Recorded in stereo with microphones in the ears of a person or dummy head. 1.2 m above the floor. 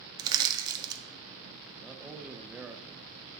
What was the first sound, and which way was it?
Crushing, 15° right (ahead or behind).